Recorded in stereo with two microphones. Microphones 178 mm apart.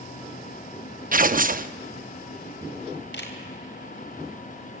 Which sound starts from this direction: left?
A camera shutter, at 3.1 s.